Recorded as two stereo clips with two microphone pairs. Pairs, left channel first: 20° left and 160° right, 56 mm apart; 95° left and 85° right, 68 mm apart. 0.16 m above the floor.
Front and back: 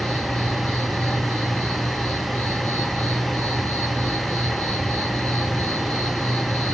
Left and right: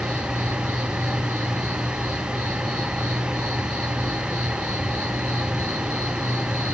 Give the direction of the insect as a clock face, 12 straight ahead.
1 o'clock.